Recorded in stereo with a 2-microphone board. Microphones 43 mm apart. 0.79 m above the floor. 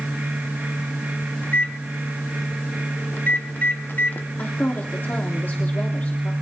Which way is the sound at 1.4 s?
50° left (ahead or behind).